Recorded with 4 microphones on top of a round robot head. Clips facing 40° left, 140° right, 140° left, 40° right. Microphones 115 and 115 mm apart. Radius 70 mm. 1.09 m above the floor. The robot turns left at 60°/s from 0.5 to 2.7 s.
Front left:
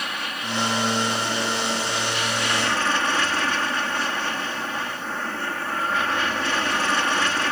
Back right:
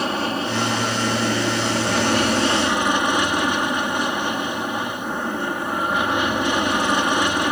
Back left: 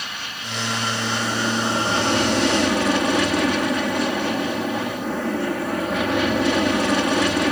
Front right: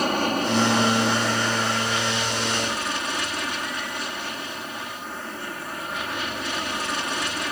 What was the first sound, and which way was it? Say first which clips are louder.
An aircraft: back right 9 dB, front right 12 dB; 85° right.